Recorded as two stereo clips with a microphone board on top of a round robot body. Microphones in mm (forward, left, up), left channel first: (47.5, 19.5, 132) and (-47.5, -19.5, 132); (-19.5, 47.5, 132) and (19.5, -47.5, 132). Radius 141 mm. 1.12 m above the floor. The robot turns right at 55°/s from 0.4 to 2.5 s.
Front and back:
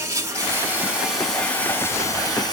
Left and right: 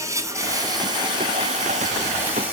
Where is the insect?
110° right, 1.7 m; by 2.5 s 5° left, 1.7 m.